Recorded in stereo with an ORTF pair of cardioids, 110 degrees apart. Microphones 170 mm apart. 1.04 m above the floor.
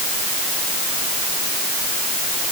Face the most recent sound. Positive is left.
No sound to turn to.